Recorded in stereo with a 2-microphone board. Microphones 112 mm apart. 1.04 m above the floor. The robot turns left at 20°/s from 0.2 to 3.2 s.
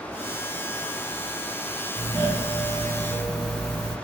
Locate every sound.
1.9 s a doorbell: 15° left (ahead or behind), 1.7 m; by 4.0 s 10° right (ahead or behind), 1.7 m